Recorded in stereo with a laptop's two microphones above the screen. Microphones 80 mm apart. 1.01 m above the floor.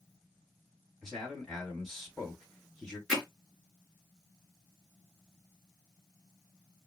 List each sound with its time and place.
1.0 s a man speaking: 5° left (ahead or behind), 2.5 m
3.1 s hammering: 5° left (ahead or behind), 4 m